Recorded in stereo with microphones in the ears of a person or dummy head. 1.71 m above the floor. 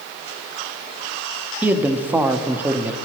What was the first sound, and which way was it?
A man speaking, 10° right (ahead or behind).